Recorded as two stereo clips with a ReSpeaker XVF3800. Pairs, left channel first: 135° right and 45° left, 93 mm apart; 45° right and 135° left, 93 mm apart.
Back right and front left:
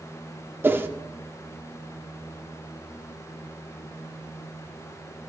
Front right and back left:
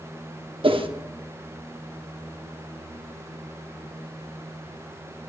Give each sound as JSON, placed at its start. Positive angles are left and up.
{"t": 0.6, "sound": "a whoosh", "azimuth_deg": 115, "distance_m": 0.9}